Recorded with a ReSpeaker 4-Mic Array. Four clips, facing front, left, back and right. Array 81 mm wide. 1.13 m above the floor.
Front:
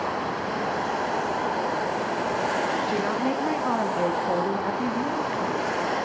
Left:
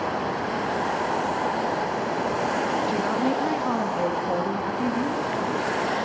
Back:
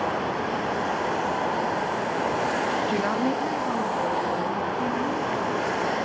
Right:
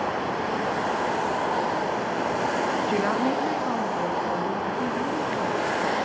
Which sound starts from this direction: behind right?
A woman speaking, at 2.9 s.